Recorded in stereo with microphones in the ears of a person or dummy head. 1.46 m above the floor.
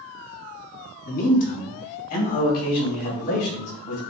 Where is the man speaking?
50° left (ahead or behind), 1.3 m; by 4.0 s 60° left (ahead or behind), 3.5 m.